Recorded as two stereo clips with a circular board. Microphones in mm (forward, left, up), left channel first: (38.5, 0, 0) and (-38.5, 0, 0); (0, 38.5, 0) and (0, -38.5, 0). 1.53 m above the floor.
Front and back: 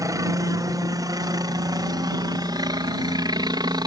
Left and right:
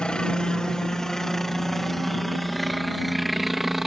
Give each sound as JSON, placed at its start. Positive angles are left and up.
{"t": 0.0, "sound": "a helicopter", "azimuth_deg": 165}